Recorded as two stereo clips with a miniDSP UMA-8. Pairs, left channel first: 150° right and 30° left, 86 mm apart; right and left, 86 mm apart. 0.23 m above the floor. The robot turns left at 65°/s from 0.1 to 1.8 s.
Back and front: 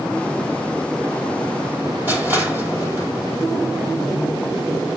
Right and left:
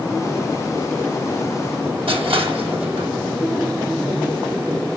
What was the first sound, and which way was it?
Crushing, 100° left.